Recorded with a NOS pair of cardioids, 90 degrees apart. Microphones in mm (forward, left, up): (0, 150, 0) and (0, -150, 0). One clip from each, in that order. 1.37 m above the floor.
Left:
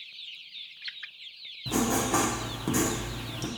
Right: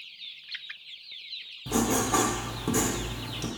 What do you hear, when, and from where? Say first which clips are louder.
1.7 s writing: right 1 dB; straight ahead, 0.8 m